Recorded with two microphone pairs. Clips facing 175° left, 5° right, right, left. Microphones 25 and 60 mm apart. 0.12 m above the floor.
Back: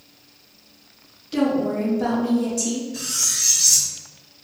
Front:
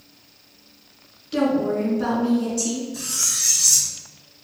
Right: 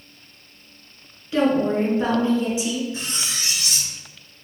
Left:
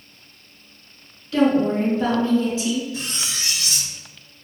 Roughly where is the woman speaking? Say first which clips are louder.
Even, left 1 dB; ahead right.